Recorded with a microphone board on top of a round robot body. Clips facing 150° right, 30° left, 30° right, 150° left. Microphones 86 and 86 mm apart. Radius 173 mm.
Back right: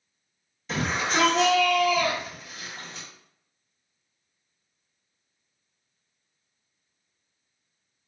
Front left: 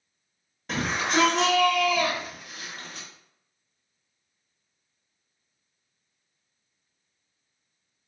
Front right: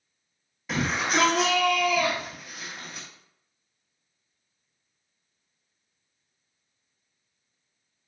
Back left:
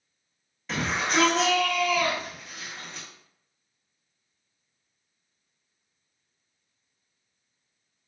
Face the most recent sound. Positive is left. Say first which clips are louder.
# front left 1 dB, front right 1 dB
turn(degrees=45)